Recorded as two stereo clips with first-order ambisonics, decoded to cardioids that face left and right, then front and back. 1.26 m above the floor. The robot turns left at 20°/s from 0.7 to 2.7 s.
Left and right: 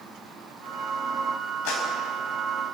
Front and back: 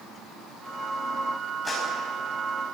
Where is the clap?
75° left, 7.5 m.